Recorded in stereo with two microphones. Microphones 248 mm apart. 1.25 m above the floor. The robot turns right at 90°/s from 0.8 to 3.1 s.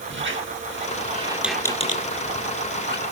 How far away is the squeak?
About 1.2 m.